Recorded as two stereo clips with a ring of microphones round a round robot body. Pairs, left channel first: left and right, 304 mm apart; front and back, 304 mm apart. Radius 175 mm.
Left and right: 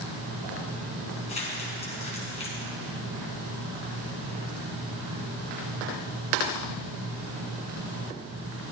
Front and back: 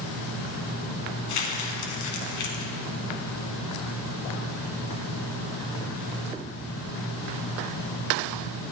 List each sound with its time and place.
1.3 s crumpling: 20° left, 1.9 m